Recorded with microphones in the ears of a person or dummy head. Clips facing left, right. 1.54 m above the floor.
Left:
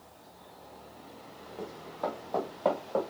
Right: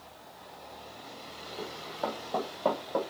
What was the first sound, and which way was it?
Running footsteps, centre (ahead or behind).